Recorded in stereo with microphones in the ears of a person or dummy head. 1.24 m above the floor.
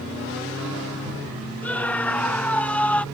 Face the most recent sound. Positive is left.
turn(degrees=5)  # may be behind; listen again after turning